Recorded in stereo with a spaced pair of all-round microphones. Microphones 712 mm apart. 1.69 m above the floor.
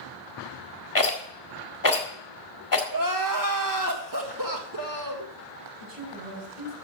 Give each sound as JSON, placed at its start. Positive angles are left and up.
{"t": 0.9, "sound": "a rattle", "side_deg": 25, "distance_m": 1.8}
{"t": 2.9, "sound": "crying", "side_deg": -30, "distance_m": 1.4}
{"t": 5.8, "sound": "a woman speaking", "side_deg": -50, "distance_m": 7.0}